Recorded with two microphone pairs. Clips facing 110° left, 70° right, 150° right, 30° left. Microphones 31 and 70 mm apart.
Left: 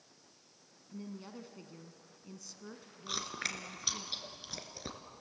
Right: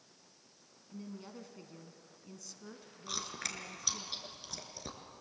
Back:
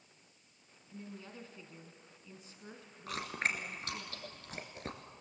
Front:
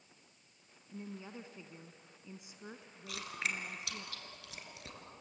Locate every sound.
0.9 s a woman speaking: 40° left, 1.0 m
3.1 s chewing: 170° left, 2 m